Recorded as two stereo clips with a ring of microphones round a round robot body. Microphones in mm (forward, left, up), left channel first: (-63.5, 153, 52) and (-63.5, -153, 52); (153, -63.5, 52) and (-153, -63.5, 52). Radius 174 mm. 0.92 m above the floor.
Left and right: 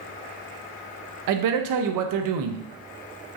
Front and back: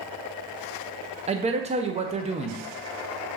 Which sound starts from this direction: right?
A man speaking, at 1.3 s.